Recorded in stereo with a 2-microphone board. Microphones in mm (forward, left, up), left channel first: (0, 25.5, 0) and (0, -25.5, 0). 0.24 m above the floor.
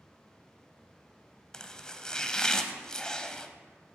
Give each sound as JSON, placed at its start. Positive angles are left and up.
{"t": 1.5, "sound": "chopping", "side_deg": 15, "distance_m": 0.8}